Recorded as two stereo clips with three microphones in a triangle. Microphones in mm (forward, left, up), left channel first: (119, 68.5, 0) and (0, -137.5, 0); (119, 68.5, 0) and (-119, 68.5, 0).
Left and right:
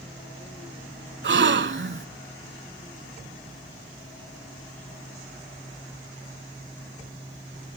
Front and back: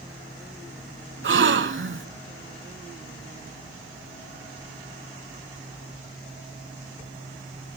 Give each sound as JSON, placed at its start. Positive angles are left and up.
{"t": 1.2, "sound": "a gasp", "azimuth_deg": -150, "distance_m": 0.5}